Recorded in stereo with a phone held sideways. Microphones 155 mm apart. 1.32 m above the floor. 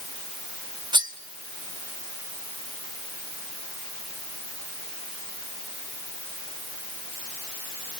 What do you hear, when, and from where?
0.9 s cutlery clinking: 30° right (ahead or behind), 1.2 m